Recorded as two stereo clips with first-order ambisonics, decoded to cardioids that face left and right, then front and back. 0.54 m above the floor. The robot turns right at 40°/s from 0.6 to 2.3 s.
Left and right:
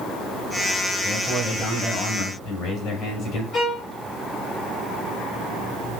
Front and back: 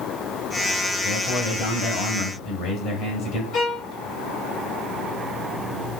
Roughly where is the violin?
Ahead left.